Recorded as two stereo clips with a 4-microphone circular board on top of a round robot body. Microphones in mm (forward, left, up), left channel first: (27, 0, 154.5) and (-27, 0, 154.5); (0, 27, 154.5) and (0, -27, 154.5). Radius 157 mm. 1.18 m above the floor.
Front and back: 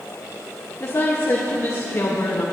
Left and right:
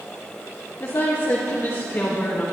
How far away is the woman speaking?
About 2 m.